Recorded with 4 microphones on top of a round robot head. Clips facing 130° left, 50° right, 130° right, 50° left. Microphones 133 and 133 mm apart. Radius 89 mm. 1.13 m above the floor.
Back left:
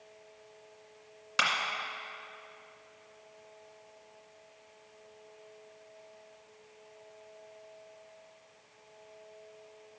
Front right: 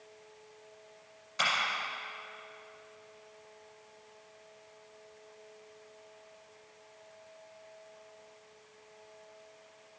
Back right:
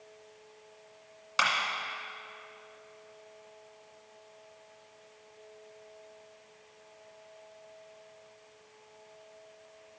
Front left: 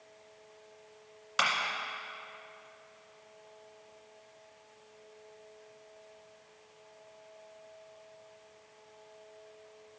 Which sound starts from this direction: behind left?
A clap, at 1.4 s.